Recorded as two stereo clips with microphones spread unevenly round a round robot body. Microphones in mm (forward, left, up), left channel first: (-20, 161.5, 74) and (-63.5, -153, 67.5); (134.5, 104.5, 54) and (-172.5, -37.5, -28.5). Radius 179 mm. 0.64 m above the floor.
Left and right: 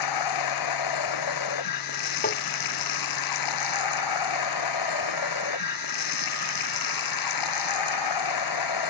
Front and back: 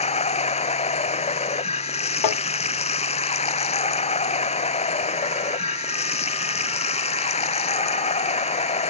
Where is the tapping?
20° left.